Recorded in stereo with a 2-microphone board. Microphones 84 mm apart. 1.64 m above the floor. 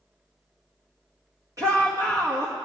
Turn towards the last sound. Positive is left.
turn(degrees=-40)  # may be behind; listen again after turning